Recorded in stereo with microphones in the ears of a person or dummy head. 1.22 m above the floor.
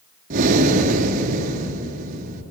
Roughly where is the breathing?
Right.